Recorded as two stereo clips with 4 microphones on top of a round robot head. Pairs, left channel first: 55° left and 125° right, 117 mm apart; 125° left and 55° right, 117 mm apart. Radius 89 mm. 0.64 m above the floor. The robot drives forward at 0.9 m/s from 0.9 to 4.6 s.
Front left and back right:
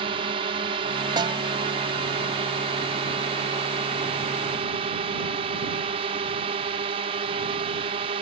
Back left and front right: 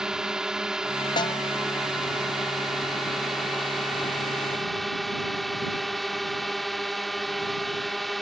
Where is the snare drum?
Straight behind.